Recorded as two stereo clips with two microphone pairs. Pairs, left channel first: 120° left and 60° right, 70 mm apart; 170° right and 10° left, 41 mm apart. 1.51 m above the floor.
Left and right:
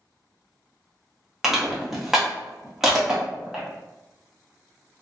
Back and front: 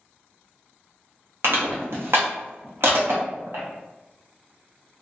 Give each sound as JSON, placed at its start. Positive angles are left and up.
{"t": 1.4, "sound": "crushing", "azimuth_deg": 20, "distance_m": 0.7}